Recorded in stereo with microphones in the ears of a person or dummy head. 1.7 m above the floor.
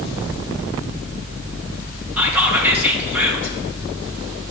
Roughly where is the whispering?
Centre.